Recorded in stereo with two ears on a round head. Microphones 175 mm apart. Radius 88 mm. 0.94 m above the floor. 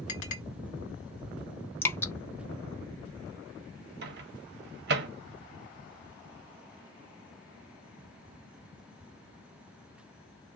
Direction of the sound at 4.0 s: 55° right (ahead or behind).